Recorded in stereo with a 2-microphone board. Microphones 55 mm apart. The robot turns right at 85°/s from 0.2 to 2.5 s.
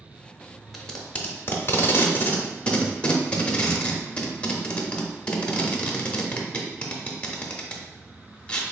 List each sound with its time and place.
0.7 s tape being pulled: centre (ahead or behind), 0.6 m; by 8.6 s 20° left (ahead or behind), 0.6 m